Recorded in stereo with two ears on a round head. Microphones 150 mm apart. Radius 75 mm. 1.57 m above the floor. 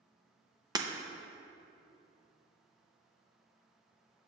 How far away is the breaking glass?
About 0.8 m.